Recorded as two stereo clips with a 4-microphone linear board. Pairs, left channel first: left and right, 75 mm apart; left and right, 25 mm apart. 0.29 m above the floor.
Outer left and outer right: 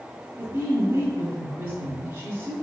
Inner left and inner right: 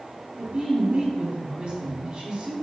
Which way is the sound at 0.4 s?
30° right (ahead or behind).